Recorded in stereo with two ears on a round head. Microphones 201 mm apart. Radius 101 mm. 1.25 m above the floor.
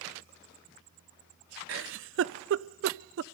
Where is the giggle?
60° right (ahead or behind), 0.5 m.